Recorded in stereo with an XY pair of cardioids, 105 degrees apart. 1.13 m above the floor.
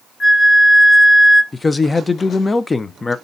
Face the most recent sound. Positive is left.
turn(degrees=20)